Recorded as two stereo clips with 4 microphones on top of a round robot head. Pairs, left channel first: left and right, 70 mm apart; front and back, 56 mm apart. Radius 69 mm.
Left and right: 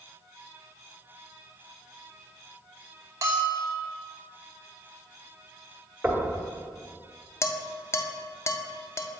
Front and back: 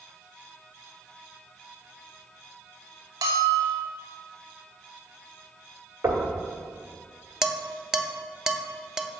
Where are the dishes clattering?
105° left, 0.5 m.